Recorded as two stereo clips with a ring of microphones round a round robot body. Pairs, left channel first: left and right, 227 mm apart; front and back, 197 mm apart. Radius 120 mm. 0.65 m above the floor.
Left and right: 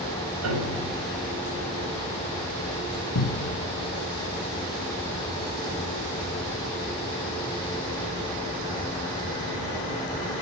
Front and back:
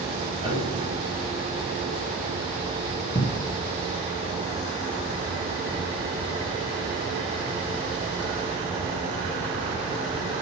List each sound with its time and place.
0.4 s a piano: 115° right, 5 m
3.1 s a cupboard door: 70° left, 0.9 m